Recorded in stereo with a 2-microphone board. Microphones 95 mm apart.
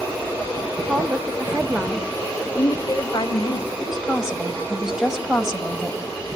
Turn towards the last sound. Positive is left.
turn(degrees=-5)  # may be behind; listen again after turning